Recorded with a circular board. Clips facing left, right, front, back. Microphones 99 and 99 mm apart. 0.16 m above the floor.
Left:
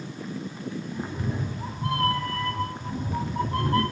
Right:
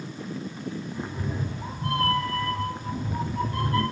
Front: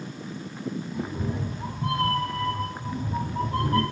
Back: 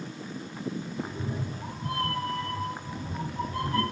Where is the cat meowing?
10° left, 5 m; by 3.8 s 40° left, 4 m.